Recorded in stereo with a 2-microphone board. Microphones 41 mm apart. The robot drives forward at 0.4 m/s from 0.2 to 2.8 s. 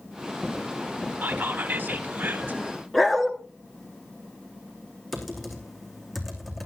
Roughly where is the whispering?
Right.